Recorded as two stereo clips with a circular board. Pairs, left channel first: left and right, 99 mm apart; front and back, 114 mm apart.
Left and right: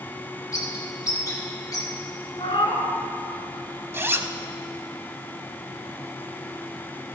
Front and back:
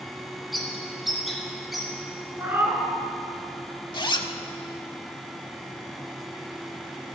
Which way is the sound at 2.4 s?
110° left.